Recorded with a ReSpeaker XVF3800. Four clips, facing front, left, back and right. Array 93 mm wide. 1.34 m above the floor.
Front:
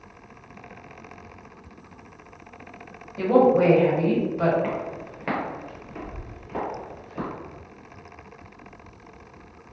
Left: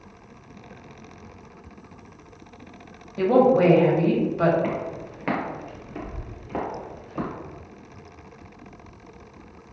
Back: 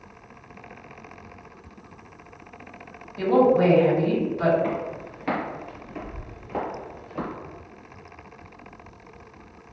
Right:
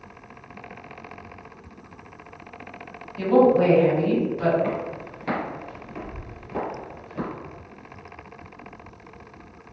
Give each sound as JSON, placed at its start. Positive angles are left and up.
{"t": 3.2, "sound": "a woman speaking", "azimuth_deg": 80, "distance_m": 1.3}
{"t": 4.6, "sound": "footsteps", "azimuth_deg": 50, "distance_m": 1.5}